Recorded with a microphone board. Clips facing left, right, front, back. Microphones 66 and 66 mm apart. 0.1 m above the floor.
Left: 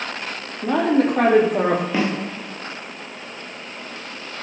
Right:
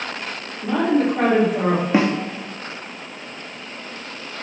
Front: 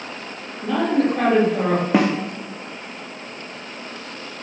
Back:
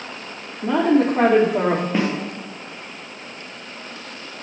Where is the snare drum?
20° right, 2 m.